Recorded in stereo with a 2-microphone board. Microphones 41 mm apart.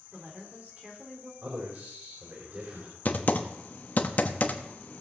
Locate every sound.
0.1 s a woman speaking: 35° right (ahead or behind), 4 m
1.4 s a man speaking: 55° right (ahead or behind), 4 m
3.0 s typing on a keyboard: 40° left (ahead or behind), 1.1 m